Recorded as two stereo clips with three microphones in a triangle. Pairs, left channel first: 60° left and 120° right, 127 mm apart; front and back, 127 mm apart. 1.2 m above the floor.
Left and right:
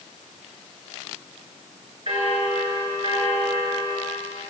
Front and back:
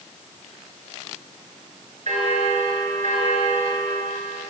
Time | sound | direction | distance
2.1 | a bell | 160° right | 4.5 m